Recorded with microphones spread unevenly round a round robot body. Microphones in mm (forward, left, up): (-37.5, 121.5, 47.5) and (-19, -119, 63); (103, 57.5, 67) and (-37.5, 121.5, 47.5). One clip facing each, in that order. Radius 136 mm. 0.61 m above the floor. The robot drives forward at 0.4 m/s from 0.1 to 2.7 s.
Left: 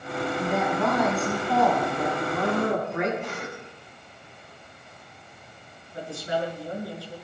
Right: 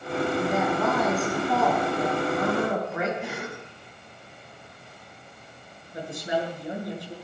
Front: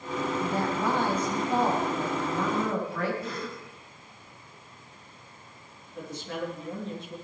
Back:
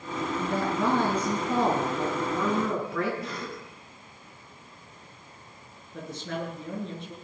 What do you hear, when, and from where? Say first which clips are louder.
0.4 s a woman speaking: left 2 dB, back 3 dB; 175° right, 7.5 m
3.2 s a cough: right 1 dB, even; 165° right, 7 m
5.9 s a woman speaking: right 1 dB, back 1 dB; 155° right, 8.5 m